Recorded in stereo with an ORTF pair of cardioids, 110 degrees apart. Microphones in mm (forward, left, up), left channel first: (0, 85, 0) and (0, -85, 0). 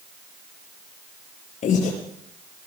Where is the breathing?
50° left, 7.5 m.